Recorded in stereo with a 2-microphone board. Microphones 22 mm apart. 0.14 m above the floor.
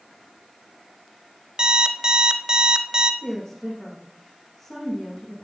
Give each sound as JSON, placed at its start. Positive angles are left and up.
{"t": 1.6, "sound": "an alarm clock", "side_deg": -40, "distance_m": 0.9}
{"t": 3.2, "sound": "a woman speaking", "side_deg": 15, "distance_m": 5.5}